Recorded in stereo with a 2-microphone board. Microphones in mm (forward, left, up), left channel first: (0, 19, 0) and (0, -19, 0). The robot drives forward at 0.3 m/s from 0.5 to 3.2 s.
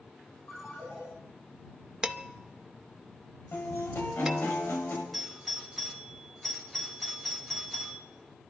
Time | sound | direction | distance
0.5 | a ringtone | 35° left (ahead or behind) | 9 m
2.0 | dishes clattering | 20° right (ahead or behind) | 0.8 m
3.5 | a guitar | 70° left (ahead or behind) | 5 m
5.1 | a doorbell | 5° left (ahead or behind) | 2.5 m